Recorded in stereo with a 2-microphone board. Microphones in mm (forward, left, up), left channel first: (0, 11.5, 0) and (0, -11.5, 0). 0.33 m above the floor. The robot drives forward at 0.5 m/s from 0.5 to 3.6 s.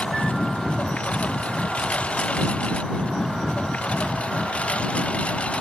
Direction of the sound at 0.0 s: 60° left (ahead or behind).